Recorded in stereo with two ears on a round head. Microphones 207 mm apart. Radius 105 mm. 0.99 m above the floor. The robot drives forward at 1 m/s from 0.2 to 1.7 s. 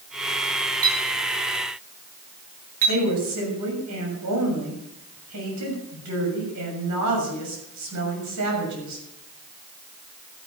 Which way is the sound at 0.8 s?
70° right (ahead or behind).